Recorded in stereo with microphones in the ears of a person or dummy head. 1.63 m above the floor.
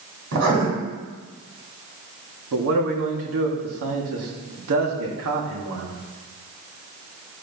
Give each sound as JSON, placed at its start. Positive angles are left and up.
{"t": 0.3, "sound": "writing", "side_deg": -70, "distance_m": 6.0}
{"t": 2.5, "sound": "a man speaking", "side_deg": -80, "distance_m": 2.5}